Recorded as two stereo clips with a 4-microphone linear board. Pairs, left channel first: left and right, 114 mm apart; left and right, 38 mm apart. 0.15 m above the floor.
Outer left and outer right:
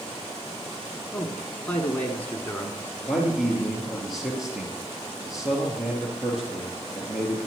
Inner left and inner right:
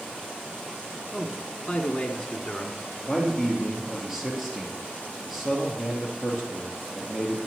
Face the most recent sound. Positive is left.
turn(degrees=-5)  # may be behind; listen again after turning